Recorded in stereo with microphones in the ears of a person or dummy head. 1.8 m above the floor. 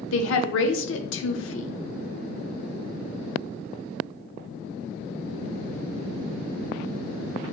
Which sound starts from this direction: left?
A woman speaking, at 0.1 s.